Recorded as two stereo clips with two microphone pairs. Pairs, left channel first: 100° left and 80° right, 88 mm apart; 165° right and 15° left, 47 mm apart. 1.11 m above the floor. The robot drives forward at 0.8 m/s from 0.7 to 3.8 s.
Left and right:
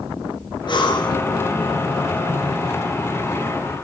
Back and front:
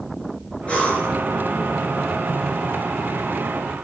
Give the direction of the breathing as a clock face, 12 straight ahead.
8 o'clock.